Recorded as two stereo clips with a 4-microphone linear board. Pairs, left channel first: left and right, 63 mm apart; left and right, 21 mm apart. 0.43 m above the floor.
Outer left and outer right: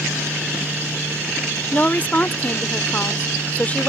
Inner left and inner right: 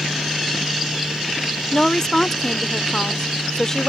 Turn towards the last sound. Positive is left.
turn(degrees=30)  # may be behind; listen again after turning